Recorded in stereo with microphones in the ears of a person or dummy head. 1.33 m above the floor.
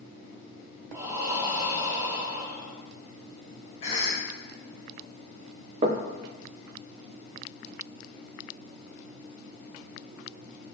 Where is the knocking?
35° right (ahead or behind), 0.8 m.